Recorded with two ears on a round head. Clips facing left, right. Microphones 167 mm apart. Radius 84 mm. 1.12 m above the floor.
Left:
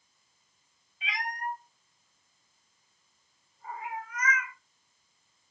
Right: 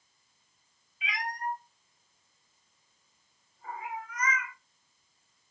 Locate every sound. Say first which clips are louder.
1.0 s a cat meowing: right 1 dB; 30° left (ahead or behind), 0.7 m; by 4.5 s 75° right (ahead or behind), 1.5 m